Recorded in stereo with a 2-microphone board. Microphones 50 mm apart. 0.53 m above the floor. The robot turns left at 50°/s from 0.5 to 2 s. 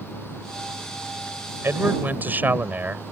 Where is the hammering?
I don't hear hammering.